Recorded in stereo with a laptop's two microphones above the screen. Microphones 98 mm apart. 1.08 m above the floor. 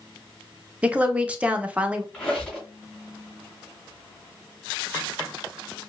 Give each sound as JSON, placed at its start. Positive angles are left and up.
{"t": 0.8, "sound": "a woman speaking", "side_deg": -15, "distance_m": 0.7}
{"t": 2.1, "sound": "a squeak", "side_deg": 15, "distance_m": 2.5}